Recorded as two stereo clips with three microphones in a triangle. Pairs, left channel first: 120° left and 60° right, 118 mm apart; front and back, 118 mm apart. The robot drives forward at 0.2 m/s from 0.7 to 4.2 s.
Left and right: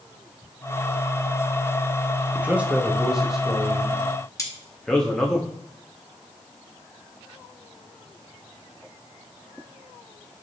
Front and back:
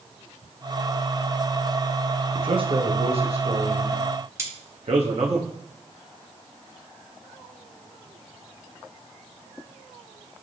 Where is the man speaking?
135° right, 0.6 m; by 5.4 s 155° right, 0.9 m.